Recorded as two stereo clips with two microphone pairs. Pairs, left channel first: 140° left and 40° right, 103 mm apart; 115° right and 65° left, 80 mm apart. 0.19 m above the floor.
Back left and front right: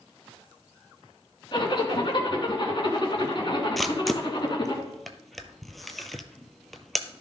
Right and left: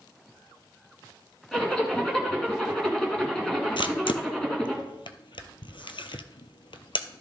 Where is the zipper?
160° left, 2.5 m.